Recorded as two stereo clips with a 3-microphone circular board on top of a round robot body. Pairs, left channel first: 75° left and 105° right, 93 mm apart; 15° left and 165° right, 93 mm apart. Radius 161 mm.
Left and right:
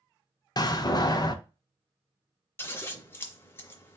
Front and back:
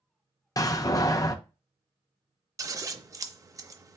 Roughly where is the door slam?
Ahead left.